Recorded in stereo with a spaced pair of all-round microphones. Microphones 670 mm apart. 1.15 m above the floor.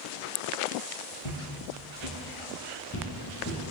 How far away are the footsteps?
About 1.8 m.